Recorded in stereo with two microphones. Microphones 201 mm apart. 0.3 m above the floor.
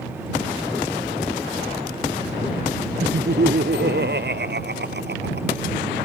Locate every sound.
3.0 s laughter: 60° right (ahead or behind)